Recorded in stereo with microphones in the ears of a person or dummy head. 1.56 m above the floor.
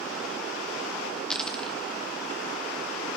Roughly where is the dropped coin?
Centre.